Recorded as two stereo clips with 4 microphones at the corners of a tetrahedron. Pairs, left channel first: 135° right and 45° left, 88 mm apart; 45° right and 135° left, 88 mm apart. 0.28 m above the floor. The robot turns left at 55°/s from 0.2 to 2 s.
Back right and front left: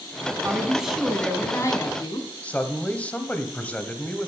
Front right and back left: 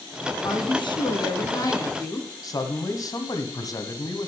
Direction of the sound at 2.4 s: 65° right.